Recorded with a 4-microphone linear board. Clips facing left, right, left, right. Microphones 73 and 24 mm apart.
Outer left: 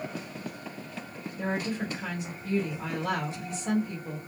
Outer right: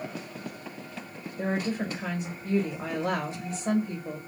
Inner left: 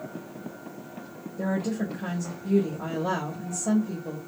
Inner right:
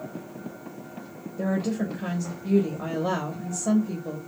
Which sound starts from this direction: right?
A woman speaking, at 1.4 s.